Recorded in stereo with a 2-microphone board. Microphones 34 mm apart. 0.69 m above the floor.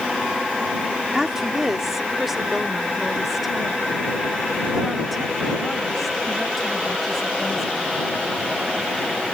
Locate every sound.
1.1 s a woman speaking: 10° right (ahead or behind); by 8.2 s 5° left (ahead or behind)